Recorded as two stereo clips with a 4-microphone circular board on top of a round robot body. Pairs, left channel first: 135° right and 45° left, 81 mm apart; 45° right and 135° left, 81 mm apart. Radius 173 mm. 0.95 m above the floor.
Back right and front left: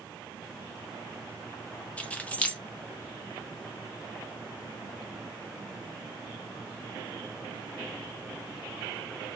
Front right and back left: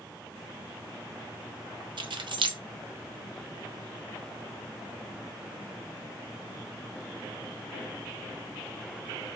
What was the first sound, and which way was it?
Keys jangling, 150° left.